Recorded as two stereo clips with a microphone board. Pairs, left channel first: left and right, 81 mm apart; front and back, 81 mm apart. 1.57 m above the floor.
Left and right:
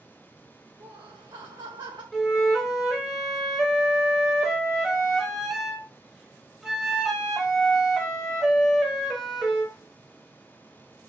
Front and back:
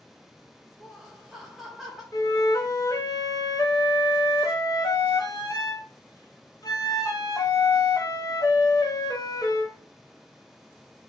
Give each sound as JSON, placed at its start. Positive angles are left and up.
{"t": 0.8, "sound": "laughter", "azimuth_deg": -95, "distance_m": 1.5}
{"t": 2.1, "sound": "a flute", "azimuth_deg": -5, "distance_m": 0.6}